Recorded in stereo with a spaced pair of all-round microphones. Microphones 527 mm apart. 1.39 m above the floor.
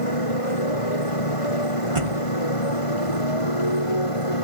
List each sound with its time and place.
0.0 s a motorcycle: 85° left; by 4.4 s 75° left (ahead or behind)
1.9 s a thud: 70° right (ahead or behind)